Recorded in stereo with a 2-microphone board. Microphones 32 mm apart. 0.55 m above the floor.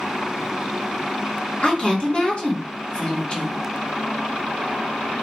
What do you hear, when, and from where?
1.6 s a woman speaking: 35° left (ahead or behind), 1.4 m